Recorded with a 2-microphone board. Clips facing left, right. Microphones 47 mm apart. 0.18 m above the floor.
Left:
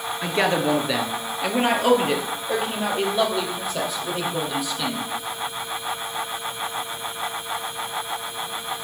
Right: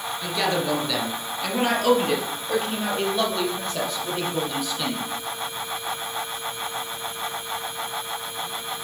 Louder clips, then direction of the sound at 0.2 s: Left 3 dB; 35° left (ahead or behind).